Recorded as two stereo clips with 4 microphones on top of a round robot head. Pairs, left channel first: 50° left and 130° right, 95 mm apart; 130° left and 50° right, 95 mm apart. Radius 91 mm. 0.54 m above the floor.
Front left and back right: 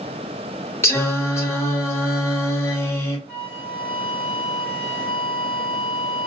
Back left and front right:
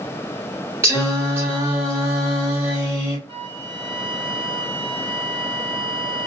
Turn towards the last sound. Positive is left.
turn(degrees=-30)